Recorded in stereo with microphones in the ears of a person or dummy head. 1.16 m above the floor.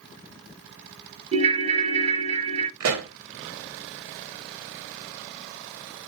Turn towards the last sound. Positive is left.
turn(degrees=-75)  # may be behind; listen again after turning